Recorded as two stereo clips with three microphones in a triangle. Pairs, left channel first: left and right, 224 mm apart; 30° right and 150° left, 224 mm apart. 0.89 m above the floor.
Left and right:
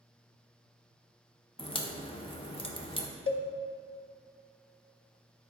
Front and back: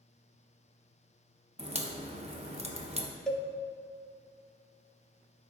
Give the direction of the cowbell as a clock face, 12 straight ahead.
10 o'clock.